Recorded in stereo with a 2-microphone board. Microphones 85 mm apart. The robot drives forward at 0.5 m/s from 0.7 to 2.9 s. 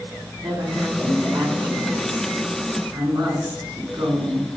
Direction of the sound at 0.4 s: 80° right.